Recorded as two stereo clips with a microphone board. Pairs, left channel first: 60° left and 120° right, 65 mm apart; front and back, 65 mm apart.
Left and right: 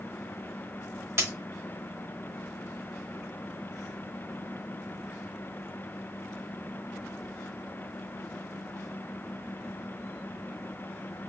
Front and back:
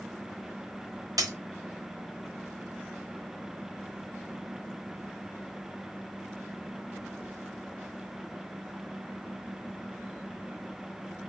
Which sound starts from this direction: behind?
A dropped coin, at 1.2 s.